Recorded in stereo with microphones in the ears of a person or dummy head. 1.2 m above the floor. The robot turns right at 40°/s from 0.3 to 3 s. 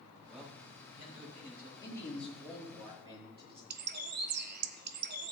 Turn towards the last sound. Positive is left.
turn(degrees=-50)  # may be behind; listen again after turning